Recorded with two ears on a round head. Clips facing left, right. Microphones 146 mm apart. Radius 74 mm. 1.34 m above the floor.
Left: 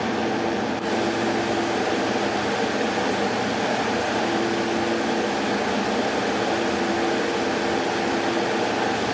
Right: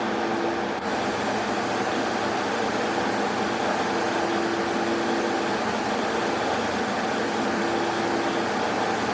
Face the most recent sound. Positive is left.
No sound to turn to.